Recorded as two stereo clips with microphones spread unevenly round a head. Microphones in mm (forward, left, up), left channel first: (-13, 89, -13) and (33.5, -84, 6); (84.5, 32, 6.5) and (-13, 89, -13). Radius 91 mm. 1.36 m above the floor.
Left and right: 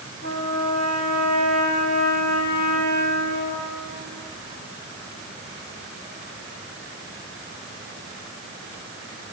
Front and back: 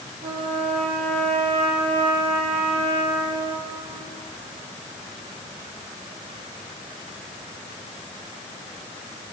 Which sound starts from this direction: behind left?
A trumpet, at 0.2 s.